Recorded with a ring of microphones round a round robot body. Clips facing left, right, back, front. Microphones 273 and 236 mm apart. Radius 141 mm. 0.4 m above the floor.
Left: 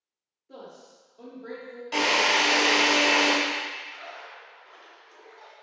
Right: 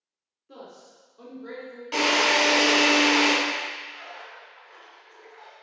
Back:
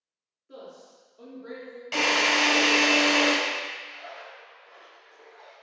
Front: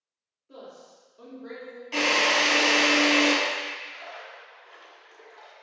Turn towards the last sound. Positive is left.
turn(degrees=0)